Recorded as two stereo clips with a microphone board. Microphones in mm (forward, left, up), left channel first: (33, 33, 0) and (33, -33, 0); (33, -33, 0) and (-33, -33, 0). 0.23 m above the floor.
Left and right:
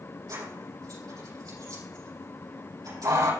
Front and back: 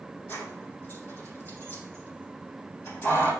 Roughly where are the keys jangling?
Ahead right.